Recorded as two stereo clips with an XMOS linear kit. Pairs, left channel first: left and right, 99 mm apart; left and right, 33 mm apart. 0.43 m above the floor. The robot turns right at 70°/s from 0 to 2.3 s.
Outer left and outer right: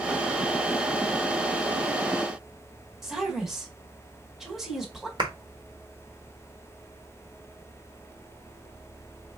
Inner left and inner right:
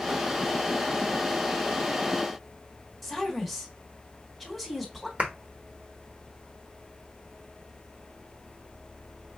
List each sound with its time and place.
3.0 s a woman speaking: 5° right (ahead or behind), 1.2 m
5.2 s a clap: 50° right (ahead or behind), 1.1 m